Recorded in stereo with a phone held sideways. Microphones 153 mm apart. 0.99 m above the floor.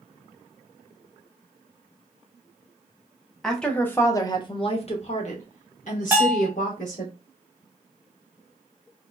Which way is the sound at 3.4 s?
Centre (ahead or behind).